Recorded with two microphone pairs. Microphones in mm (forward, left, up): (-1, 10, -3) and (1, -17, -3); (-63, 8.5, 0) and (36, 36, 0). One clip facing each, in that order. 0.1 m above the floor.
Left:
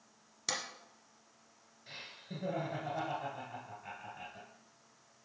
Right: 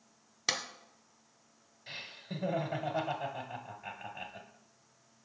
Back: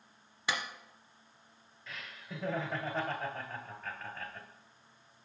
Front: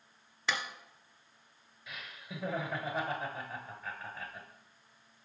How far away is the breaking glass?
No breaking glass in this recording.